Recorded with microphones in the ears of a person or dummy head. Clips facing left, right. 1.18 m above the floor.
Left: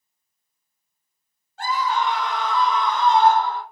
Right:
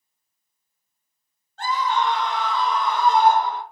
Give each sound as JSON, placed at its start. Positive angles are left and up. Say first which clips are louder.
{"t": 1.6, "sound": "a scream", "louder": "even", "side_deg": 5, "distance_m": 2.0}